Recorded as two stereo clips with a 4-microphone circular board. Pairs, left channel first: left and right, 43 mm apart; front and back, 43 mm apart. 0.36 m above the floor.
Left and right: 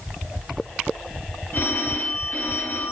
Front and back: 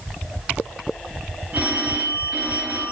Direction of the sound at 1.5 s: 125° left.